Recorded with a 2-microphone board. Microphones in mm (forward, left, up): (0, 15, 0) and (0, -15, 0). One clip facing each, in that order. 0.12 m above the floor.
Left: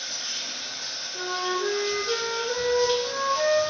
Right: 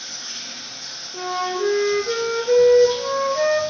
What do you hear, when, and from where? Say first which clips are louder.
0.0 s running water: left 1 dB; 45° left (ahead or behind), 1.9 m
1.1 s a flute: right 4 dB; 55° right (ahead or behind), 0.7 m